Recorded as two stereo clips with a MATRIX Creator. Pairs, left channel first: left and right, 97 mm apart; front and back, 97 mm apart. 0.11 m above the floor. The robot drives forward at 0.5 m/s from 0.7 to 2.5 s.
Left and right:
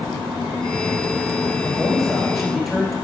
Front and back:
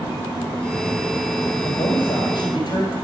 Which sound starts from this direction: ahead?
A man speaking, at 1.6 s.